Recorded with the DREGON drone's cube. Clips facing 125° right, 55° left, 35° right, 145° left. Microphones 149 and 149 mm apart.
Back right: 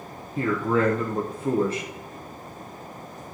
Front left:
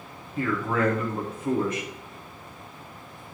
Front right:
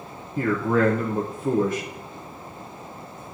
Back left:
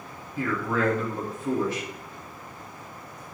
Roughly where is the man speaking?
Right.